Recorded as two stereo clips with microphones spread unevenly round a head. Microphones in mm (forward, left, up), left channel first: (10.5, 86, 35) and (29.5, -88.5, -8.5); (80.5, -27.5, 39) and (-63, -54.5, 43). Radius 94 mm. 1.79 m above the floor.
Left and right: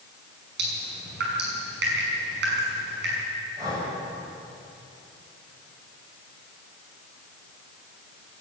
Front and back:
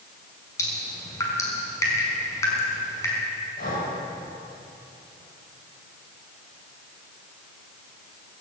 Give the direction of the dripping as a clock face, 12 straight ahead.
2 o'clock.